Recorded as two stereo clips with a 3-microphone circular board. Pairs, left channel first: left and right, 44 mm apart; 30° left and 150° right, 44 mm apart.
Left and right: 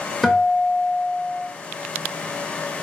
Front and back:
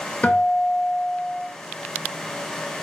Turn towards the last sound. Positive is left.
turn(degrees=10)